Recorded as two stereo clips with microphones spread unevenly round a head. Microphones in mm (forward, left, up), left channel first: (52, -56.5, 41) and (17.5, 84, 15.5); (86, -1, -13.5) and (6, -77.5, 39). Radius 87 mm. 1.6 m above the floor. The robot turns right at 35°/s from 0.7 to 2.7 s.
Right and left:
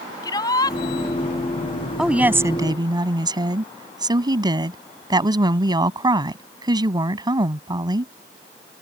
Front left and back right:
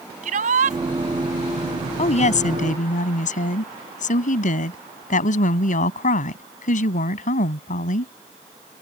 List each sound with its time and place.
0.2 s a shout: 145° right; by 0.8 s 140° right
2.0 s a woman speaking: 15° left; by 8.1 s 40° left